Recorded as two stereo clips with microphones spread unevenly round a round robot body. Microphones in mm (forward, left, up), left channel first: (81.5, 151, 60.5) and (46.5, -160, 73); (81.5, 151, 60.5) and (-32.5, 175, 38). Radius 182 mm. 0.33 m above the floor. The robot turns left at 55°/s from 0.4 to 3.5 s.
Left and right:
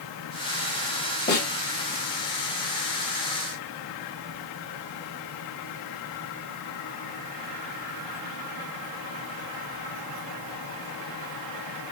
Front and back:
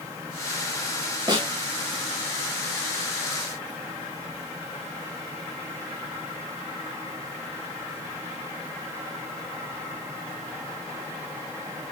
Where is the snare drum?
135° left, 2 m; by 1.5 s 125° left, 2 m.